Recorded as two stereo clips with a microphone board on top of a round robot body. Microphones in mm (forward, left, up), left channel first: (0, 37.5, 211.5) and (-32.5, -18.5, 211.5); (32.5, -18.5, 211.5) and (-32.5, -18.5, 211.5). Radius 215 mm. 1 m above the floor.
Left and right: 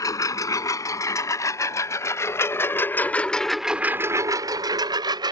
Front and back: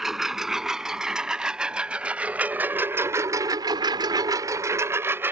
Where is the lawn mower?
95° left; by 5.3 s 125° right.